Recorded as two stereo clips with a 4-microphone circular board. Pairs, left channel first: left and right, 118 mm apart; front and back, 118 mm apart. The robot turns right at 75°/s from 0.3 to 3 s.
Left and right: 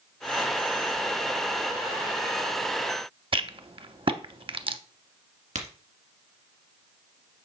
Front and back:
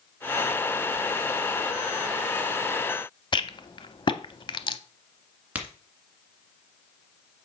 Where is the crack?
100° right, 1.8 m.